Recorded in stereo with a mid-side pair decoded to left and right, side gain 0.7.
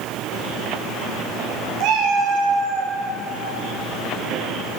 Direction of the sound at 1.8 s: 70° right.